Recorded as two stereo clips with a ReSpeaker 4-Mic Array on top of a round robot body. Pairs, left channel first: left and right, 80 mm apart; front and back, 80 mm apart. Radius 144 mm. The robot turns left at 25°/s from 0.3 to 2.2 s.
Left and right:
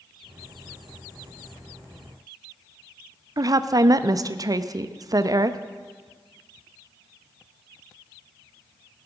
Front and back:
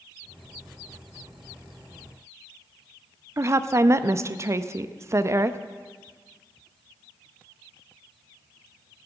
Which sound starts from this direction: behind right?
A woman speaking, at 3.4 s.